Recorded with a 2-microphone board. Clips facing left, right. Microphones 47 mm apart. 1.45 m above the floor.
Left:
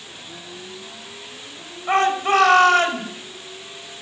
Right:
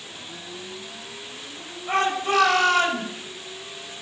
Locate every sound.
1.9 s a shout: 45° left (ahead or behind), 6.5 m